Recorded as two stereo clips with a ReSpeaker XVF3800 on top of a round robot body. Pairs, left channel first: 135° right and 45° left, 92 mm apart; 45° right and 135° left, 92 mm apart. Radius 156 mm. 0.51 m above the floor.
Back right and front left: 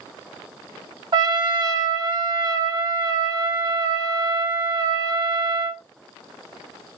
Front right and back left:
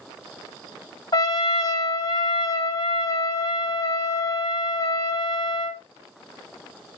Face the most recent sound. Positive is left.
turn(degrees=5)